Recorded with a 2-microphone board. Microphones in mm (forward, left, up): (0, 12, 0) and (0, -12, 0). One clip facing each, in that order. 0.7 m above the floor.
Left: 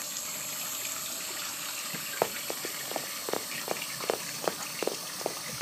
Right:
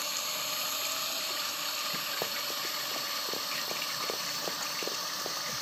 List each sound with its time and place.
0.0 s a drone: 40° right (ahead or behind); by 5.6 s 30° right (ahead or behind)
2.2 s running footsteps: 50° left (ahead or behind); by 5.6 s 45° left (ahead or behind)